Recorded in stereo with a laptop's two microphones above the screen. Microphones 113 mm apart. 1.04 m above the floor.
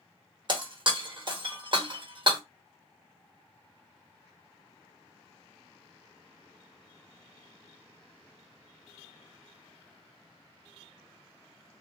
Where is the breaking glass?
45° right (ahead or behind), 0.9 m.